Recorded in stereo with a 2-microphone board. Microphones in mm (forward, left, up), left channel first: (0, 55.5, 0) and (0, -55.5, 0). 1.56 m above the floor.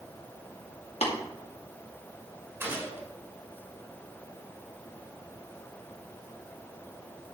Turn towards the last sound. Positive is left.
turn(degrees=-20)  # may be behind; listen again after turning